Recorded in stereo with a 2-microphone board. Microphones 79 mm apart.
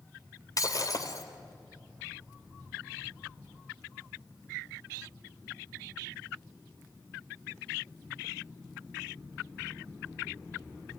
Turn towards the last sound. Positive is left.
turn(degrees=45)  # may be behind; listen again after turning